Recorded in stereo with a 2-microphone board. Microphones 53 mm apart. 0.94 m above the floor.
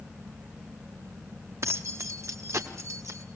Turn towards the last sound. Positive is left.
turn(degrees=-80)